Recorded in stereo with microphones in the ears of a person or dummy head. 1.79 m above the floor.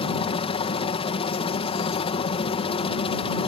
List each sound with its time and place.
0.0 s a helicopter: 25° left (ahead or behind)